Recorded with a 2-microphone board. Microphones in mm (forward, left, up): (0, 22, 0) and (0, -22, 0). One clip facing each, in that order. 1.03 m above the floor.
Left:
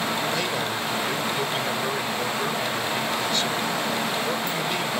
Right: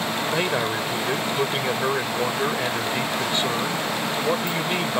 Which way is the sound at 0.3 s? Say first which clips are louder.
Right 3 dB; 25° right (ahead or behind).